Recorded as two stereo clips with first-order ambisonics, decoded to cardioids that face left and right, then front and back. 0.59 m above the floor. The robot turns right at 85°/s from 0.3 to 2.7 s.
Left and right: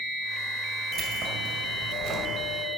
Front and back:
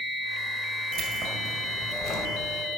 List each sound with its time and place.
0.9 s keys jangling: 155° right, 1.8 m; by 2.3 s 35° right, 1.8 m